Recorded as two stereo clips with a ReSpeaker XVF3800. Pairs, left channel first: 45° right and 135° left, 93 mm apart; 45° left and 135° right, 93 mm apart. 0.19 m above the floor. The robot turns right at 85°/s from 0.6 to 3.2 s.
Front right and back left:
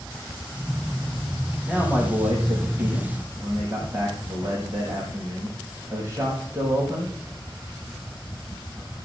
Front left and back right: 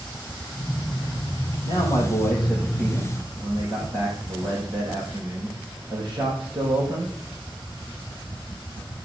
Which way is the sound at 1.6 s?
65° left.